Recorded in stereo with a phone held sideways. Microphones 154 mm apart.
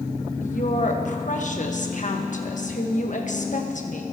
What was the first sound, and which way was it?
A woman speaking, 55° left (ahead or behind).